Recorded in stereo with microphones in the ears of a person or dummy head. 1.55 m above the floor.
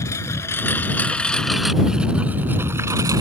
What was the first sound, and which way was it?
A lawn mower, 20° left (ahead or behind).